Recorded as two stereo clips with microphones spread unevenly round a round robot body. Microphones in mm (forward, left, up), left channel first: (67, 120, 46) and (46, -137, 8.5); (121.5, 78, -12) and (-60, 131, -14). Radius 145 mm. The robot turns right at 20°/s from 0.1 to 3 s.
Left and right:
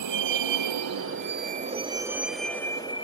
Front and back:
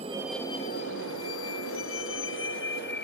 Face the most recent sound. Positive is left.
turn(degrees=15)